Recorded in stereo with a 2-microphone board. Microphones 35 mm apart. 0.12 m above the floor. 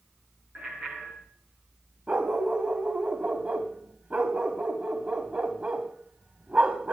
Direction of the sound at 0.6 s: 35° right (ahead or behind).